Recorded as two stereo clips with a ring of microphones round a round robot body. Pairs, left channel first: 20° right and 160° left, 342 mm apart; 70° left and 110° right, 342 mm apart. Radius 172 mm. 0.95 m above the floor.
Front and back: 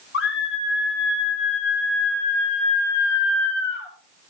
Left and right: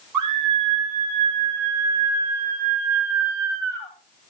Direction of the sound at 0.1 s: 80° right.